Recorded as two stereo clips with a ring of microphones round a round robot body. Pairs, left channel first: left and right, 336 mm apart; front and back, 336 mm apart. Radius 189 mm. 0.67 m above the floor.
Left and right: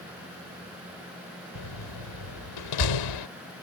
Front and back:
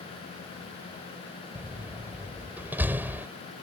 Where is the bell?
No bell in this recording.